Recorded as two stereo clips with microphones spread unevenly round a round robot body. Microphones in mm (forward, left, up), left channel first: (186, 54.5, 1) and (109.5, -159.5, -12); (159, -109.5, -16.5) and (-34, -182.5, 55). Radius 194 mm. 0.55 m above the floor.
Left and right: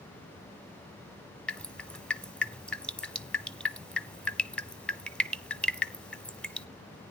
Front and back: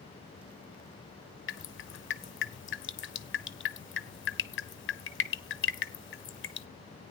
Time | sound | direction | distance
1.5 | dripping | 15° right | 0.9 m